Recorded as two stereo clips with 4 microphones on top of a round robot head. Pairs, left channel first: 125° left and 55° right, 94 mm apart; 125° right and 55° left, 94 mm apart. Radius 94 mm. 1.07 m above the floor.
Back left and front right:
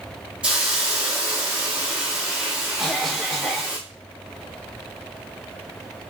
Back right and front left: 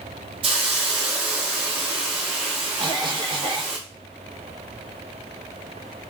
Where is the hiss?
25° left, 0.9 m.